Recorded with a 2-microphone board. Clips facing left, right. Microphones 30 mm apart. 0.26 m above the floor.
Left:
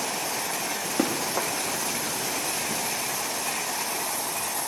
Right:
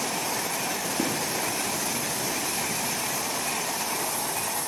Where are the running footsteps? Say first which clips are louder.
Left 4 dB; 65° left (ahead or behind), 8 m.